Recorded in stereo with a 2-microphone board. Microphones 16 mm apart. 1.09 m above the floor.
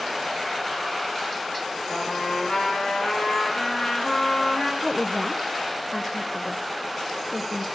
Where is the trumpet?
90° left, 8 m.